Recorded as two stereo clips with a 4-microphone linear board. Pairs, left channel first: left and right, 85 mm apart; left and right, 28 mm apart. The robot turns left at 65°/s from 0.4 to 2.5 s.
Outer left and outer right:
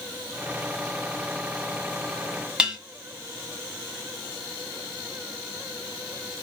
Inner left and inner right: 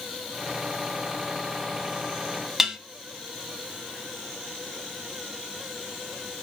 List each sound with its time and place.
2.6 s dishes clattering: 10° right (ahead or behind), 1.2 m